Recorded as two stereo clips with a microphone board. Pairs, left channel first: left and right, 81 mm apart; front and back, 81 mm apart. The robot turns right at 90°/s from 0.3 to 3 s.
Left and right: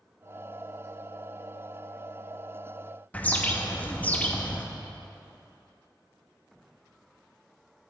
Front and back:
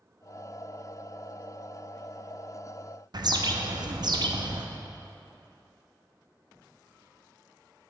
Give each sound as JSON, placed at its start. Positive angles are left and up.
{"t": 3.1, "sound": "a bird", "azimuth_deg": 160, "distance_m": 0.6}